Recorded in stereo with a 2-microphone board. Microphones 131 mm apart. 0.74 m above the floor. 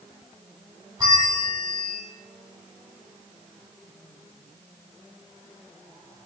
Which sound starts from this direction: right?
A bell, at 1.0 s.